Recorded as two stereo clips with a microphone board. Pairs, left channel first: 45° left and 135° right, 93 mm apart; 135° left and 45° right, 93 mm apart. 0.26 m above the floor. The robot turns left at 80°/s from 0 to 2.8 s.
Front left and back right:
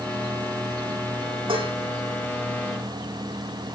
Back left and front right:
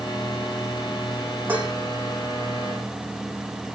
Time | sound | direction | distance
1.5 | dishes clattering | 115° right | 9.5 m